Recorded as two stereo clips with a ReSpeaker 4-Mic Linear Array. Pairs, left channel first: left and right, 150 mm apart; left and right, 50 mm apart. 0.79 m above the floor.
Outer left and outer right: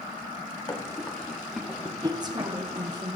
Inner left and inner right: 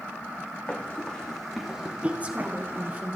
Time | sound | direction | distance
0.7 | running footsteps | 25° left (ahead or behind) | 2.5 m
2.0 | a woman speaking | 30° right (ahead or behind) | 1.5 m